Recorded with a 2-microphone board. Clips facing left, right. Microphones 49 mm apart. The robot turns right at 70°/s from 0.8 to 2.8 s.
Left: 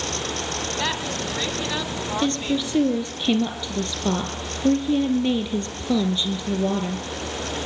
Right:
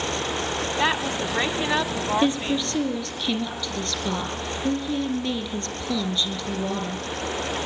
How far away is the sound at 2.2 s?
About 4 m.